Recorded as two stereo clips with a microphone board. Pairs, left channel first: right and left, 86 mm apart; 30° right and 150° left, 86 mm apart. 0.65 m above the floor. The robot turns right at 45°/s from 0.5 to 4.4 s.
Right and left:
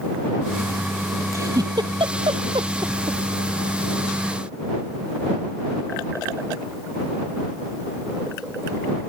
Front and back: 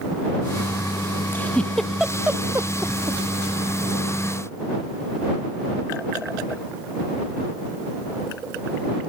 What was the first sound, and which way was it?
A giggle, 35° left.